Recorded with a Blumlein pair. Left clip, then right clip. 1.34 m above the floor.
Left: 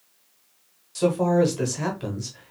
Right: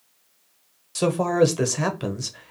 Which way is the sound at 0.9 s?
20° right.